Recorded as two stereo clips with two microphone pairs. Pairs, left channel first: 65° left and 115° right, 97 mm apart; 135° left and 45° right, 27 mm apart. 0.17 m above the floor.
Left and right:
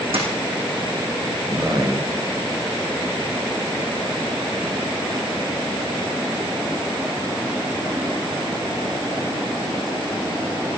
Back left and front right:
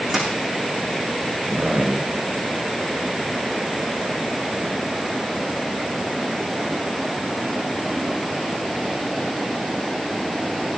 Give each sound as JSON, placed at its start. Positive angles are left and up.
{"t": 0.1, "sound": "a dropped coin", "azimuth_deg": -125, "distance_m": 4.0}
{"t": 1.5, "sound": "a man speaking", "azimuth_deg": -70, "distance_m": 2.5}